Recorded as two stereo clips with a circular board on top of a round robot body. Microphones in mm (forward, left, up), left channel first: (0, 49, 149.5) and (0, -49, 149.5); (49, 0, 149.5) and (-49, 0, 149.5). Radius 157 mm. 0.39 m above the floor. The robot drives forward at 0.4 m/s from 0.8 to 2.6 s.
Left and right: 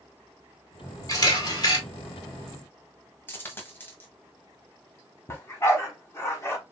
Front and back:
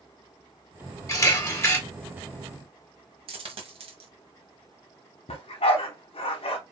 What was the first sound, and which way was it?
A camera shutter, 50° left.